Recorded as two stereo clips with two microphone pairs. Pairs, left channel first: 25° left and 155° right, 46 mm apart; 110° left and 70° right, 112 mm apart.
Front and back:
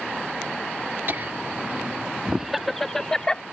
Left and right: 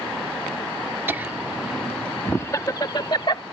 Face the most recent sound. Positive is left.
turn(degrees=90)